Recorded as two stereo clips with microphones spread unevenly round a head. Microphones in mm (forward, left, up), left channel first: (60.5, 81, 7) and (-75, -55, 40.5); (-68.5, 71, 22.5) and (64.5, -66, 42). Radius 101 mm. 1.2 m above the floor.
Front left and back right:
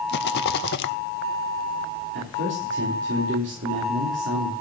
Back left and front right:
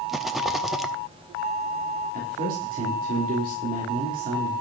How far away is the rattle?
About 0.7 m.